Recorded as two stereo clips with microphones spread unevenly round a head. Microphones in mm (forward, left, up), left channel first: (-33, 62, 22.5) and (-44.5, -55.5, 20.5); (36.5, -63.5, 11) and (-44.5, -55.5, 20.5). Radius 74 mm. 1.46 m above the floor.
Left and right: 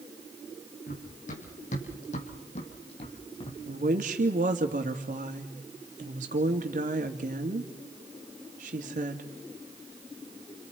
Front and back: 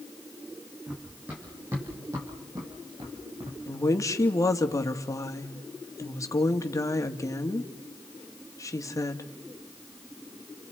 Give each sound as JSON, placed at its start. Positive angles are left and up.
{"t": 0.9, "sound": "running footsteps", "azimuth_deg": 95, "distance_m": 5.5}
{"t": 3.7, "sound": "a woman speaking", "azimuth_deg": -55, "distance_m": 2.5}